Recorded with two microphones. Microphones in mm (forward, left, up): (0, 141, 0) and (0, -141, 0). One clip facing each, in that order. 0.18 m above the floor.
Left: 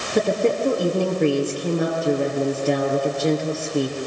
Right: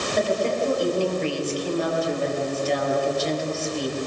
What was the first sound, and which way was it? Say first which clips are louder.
A woman speaking: left 5 dB; 65° left (ahead or behind).